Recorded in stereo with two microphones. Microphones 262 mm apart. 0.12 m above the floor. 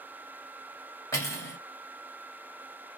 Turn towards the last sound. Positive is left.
turn(degrees=10)  # may be behind; listen again after turning